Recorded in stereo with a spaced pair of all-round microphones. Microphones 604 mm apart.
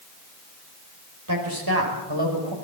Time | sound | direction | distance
1.3 | a man speaking | 30° right (ahead or behind) | 5.5 m